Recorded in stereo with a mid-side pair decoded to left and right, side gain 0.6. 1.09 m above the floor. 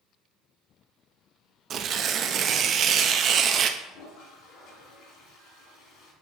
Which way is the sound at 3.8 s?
70° left.